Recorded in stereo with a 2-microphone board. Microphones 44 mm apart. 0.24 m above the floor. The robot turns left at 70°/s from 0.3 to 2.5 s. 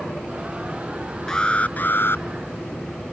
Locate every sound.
1.3 s an alarm: 165° left; by 2.2 s 100° left